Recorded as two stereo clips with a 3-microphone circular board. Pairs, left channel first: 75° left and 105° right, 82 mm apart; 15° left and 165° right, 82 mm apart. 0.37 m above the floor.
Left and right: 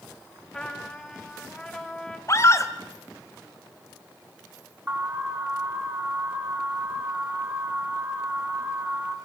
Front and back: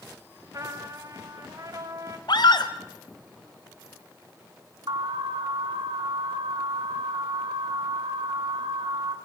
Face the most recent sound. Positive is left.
turn(degrees=-175)